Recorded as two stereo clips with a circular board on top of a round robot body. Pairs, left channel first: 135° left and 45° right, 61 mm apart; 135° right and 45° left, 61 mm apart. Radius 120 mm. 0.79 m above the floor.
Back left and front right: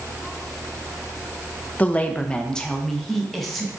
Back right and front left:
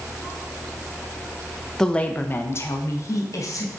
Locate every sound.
1.8 s a woman speaking: 155° left, 0.6 m; by 3.7 s 135° right, 1.2 m